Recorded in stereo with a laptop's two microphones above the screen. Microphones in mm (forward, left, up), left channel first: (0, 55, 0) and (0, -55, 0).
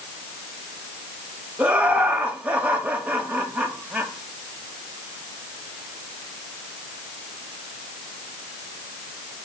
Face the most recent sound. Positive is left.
turn(degrees=-15)  # may be behind; listen again after turning